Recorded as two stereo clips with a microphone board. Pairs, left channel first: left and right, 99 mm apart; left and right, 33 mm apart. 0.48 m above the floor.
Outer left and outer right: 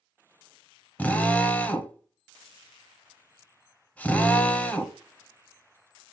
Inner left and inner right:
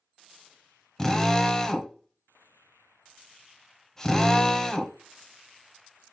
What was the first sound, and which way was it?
A drill, 15° left (ahead or behind).